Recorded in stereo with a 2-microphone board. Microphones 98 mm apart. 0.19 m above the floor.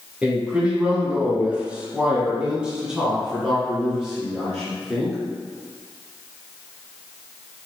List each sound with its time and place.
0.2 s a man speaking: 10° right (ahead or behind), 1.3 m; by 5.2 s centre (ahead or behind), 2.5 m